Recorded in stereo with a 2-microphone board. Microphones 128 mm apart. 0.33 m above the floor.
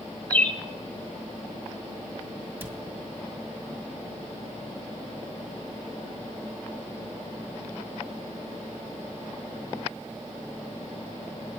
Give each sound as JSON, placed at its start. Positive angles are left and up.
{"t": 0.3, "sound": "a bird", "side_deg": 10, "distance_m": 0.9}
{"t": 2.6, "sound": "a cupboard door", "side_deg": -15, "distance_m": 1.3}